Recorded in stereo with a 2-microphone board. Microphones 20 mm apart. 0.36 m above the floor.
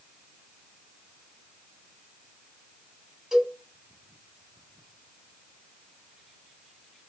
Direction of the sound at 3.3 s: 25° right (ahead or behind).